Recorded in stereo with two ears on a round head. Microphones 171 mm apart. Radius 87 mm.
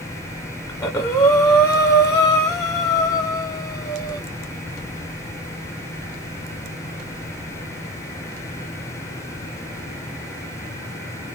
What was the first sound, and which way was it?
Breathing, 15° left (ahead or behind).